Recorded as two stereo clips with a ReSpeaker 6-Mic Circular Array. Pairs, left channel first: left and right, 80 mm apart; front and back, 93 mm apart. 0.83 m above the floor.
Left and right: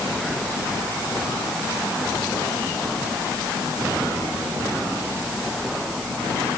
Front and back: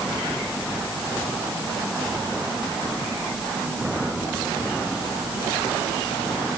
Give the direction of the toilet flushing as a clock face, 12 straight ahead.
I don't hear a toilet flushing.